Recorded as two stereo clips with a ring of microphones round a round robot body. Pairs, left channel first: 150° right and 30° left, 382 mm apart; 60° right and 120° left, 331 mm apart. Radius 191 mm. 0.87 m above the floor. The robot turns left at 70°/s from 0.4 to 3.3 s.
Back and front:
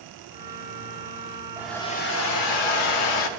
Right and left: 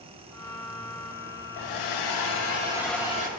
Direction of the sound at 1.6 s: 50° right.